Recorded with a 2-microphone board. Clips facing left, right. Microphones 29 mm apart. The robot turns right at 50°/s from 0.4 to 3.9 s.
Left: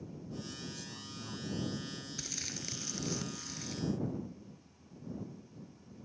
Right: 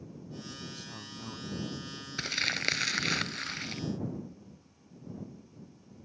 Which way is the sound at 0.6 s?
60° right.